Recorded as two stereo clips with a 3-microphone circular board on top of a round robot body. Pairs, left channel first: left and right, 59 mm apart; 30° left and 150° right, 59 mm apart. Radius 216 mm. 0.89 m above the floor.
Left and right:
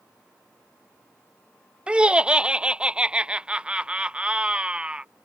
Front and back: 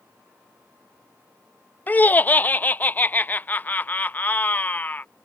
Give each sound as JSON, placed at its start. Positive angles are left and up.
{"t": 1.9, "sound": "laughter", "azimuth_deg": -20}